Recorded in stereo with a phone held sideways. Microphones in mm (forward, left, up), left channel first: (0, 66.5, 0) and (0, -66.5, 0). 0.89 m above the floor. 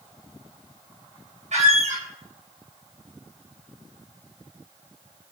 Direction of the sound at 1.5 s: 60° right (ahead or behind).